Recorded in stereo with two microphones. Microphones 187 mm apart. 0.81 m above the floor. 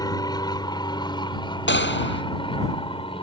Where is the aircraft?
20° left (ahead or behind); by 3.2 s 30° left (ahead or behind).